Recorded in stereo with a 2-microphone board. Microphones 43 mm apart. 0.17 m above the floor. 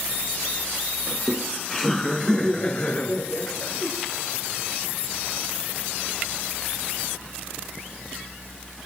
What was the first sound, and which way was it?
Laughter, 10° right (ahead or behind).